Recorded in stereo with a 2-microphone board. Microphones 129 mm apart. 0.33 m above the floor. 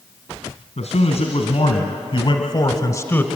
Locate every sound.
0.8 s a man speaking: 70° left (ahead or behind), 2.5 m; by 3.3 s 15° left (ahead or behind), 1.1 m